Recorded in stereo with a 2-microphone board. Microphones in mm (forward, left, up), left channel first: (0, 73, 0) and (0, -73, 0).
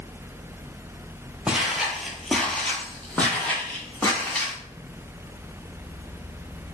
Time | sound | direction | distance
1.5 | footsteps | 10° right (ahead or behind) | 0.8 m